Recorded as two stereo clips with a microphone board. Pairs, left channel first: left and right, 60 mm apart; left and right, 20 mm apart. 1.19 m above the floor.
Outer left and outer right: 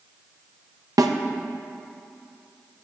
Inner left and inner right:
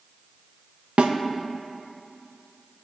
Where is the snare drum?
80° right, 0.7 m.